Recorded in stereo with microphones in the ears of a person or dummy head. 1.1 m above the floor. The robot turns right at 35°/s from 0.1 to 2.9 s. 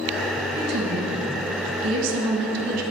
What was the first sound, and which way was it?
A woman speaking, 45° right (ahead or behind).